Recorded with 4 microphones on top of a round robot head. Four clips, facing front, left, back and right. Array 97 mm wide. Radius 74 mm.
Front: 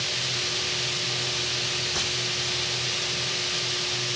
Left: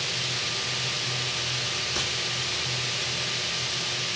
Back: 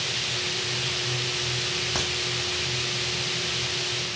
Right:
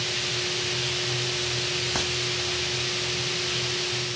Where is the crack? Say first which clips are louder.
Right 3 dB, back 4 dB; 120° right, 2.5 m.